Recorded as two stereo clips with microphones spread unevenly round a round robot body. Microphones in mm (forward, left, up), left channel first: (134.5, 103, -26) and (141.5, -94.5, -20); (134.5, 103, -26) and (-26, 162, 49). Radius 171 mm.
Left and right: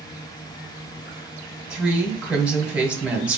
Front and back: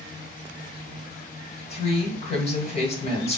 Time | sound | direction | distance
1.7 | a woman speaking | 5° right | 1.7 m